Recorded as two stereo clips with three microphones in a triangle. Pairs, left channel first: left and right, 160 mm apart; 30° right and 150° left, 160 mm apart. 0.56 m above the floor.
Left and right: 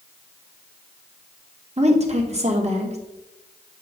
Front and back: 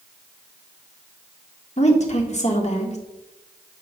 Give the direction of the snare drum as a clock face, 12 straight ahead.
I don't hear a snare drum.